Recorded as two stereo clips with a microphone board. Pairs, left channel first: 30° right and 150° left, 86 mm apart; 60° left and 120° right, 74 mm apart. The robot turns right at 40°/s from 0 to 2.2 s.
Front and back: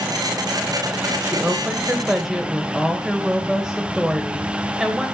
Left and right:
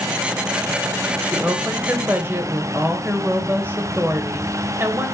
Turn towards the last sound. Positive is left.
turn(degrees=-135)